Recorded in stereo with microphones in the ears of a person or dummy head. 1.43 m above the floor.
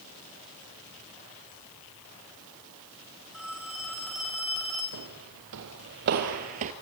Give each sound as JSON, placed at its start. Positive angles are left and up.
{"t": 3.3, "sound": "a phone ringing", "side_deg": -5, "distance_m": 4.0}
{"t": 4.9, "sound": "footsteps", "side_deg": -65, "distance_m": 3.5}